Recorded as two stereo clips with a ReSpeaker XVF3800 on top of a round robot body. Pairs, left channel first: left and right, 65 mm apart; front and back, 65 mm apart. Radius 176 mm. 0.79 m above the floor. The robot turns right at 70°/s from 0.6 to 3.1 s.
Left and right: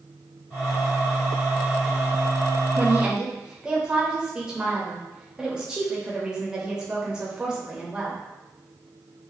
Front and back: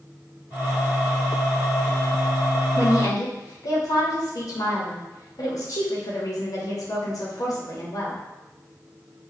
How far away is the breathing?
No breathing in this recording.